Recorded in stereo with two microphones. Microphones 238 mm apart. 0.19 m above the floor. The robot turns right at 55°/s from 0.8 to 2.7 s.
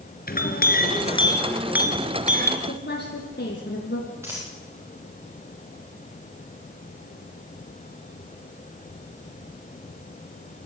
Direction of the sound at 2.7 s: 45° left (ahead or behind).